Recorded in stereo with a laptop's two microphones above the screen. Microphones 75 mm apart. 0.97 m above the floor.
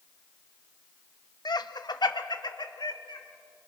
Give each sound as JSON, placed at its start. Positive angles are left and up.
{"t": 1.4, "sound": "laughter", "side_deg": 65, "distance_m": 1.1}